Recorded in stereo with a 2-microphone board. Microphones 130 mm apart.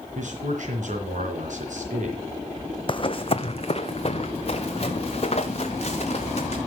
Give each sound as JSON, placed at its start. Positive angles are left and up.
{"t": 0.1, "sound": "a man speaking", "side_deg": -70, "distance_m": 3.0}
{"t": 2.9, "sound": "running footsteps", "side_deg": 40, "distance_m": 0.6}